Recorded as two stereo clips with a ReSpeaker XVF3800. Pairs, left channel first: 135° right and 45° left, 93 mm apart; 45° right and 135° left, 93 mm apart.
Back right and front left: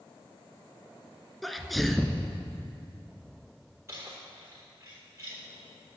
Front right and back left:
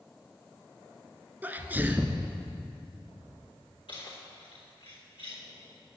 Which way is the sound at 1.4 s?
140° left.